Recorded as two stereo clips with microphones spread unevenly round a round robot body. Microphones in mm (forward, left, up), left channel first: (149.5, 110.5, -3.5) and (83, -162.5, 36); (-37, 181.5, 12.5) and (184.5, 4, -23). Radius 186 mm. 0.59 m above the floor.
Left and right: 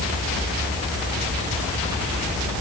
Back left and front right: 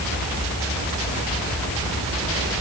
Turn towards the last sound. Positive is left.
No sound to turn to.